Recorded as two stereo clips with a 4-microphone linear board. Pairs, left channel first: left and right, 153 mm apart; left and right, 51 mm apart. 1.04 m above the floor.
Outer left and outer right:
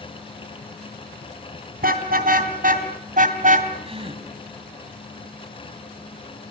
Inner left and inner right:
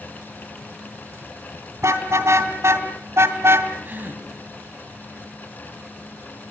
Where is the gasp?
40° right (ahead or behind), 3 m.